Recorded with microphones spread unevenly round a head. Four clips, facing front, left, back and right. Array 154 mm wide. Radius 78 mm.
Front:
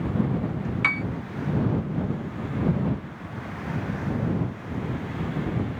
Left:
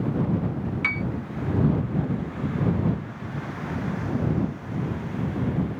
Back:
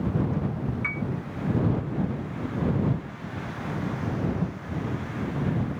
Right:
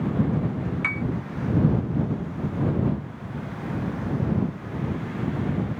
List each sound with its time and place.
0.8 s a piano: 10° left